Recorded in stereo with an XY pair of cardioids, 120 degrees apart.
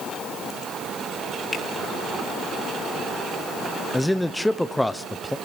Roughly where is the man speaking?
Ahead.